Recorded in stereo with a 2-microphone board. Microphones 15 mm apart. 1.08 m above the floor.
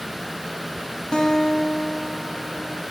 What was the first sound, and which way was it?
A guitar, 65° left (ahead or behind).